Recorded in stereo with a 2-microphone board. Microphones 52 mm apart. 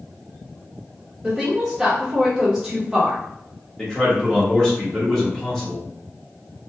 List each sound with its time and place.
1.2 s a woman speaking: 10° right (ahead or behind), 0.8 m
3.8 s a man speaking: 10° left (ahead or behind), 0.9 m